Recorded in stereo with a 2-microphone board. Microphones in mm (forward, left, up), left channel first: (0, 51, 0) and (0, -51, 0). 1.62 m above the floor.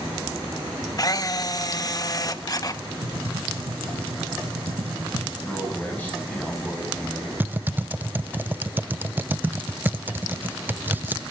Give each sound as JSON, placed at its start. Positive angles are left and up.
{"t": 1.0, "sound": "a camera shutter", "side_deg": 40, "distance_m": 1.3}
{"t": 3.0, "sound": "typing on a keyboard", "side_deg": -75, "distance_m": 5.5}
{"t": 5.4, "sound": "a man speaking", "side_deg": 15, "distance_m": 10.0}
{"t": 7.4, "sound": "typing on a keyboard", "side_deg": -20, "distance_m": 0.7}